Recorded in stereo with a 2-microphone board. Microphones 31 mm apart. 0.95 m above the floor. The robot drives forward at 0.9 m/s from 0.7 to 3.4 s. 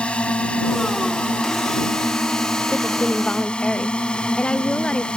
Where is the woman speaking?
55° left (ahead or behind); by 5.1 s 30° left (ahead or behind).